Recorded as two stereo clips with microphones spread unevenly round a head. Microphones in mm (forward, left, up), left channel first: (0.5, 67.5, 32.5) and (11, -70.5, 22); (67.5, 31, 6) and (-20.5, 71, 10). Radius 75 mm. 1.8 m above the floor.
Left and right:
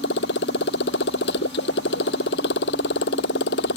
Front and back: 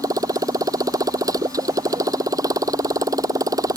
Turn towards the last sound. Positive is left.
turn(degrees=100)